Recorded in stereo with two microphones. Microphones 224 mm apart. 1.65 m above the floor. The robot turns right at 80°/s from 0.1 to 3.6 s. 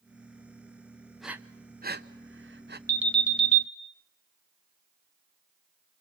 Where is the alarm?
20° right, 1.9 m; by 3.6 s 40° left, 1.9 m.